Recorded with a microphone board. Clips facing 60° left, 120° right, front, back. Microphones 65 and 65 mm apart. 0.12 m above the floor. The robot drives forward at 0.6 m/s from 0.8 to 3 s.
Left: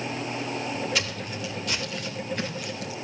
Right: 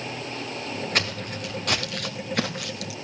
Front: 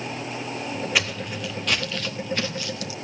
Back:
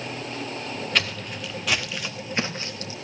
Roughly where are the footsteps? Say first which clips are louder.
Right 2 dB, back 1 dB; right.